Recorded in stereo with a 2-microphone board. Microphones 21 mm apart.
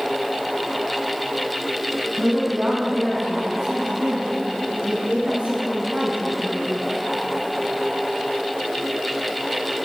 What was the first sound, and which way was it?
A woman speaking, 25° right (ahead or behind).